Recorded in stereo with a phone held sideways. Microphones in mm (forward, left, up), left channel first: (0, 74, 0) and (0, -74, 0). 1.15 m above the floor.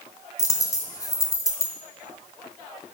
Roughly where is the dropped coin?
Left.